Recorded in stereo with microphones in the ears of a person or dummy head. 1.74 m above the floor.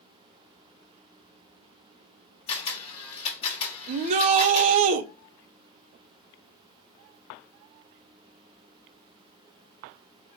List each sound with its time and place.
2.5 s a camera shutter: 35° left (ahead or behind), 1.6 m
3.9 s a shout: 45° right (ahead or behind), 0.6 m